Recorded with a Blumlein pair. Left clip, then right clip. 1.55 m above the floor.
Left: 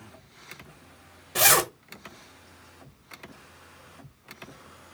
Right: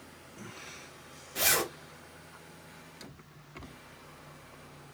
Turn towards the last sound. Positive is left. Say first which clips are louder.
# left 7 dB
turn(degrees=55)